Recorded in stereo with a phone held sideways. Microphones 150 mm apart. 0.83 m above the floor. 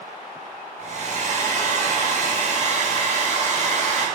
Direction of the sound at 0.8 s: 50° right (ahead or behind).